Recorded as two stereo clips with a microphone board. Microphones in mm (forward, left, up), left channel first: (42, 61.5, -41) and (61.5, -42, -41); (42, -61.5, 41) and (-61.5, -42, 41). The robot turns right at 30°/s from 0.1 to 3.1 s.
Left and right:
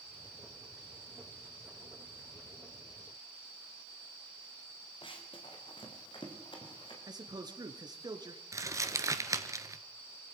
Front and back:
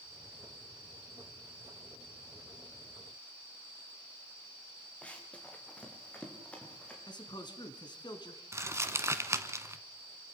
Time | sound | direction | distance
5.0 | running footsteps | 65° left | 4 m
7.1 | a man speaking | 40° right | 2.5 m
8.5 | crumpling | 130° right | 1.2 m